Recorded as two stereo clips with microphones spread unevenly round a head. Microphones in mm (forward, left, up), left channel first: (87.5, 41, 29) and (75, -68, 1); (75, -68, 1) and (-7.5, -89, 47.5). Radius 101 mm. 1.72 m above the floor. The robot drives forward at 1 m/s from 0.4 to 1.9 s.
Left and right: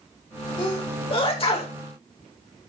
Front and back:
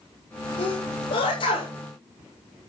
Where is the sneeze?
45° left, 6 m; by 1.7 s 50° left, 5.5 m.